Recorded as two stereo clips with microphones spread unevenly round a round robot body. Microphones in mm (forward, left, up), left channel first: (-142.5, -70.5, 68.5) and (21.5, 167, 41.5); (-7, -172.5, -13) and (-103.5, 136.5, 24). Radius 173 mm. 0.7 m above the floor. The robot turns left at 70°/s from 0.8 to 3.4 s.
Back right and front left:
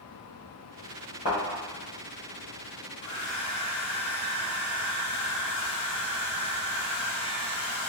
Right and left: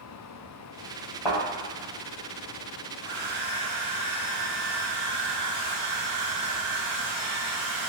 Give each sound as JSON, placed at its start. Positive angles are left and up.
{"t": 1.2, "sound": "a thud", "azimuth_deg": -55, "distance_m": 1.7}
{"t": 3.0, "sound": "a hair dryer", "azimuth_deg": -170, "distance_m": 1.6}